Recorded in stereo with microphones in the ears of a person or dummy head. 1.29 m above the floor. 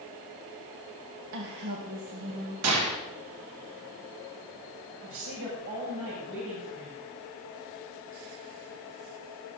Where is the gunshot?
80° right, 2.5 m.